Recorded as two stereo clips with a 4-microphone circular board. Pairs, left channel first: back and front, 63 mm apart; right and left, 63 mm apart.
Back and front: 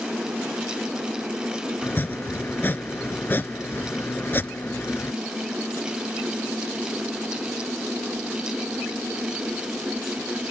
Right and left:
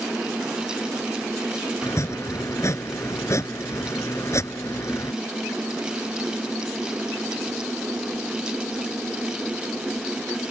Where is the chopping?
125° right.